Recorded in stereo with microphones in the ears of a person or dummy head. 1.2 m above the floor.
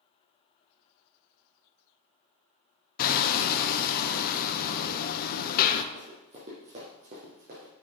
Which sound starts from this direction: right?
Running footsteps, at 5.9 s.